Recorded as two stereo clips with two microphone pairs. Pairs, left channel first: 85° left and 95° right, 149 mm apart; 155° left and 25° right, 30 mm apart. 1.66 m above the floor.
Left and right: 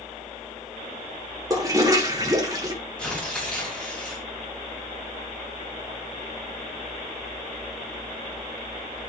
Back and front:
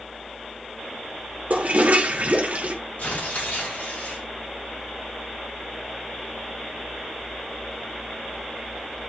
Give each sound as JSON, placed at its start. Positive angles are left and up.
{"t": 1.5, "sound": "a toilet flushing", "azimuth_deg": -35, "distance_m": 1.4}
{"t": 3.0, "sound": "tearing paper", "azimuth_deg": 165, "distance_m": 4.5}